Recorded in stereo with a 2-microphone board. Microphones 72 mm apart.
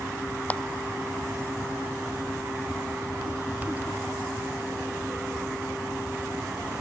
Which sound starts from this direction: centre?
A clap, at 0.5 s.